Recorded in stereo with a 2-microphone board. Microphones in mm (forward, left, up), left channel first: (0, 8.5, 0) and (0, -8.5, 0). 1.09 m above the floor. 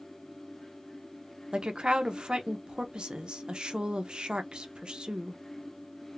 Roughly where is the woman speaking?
Right.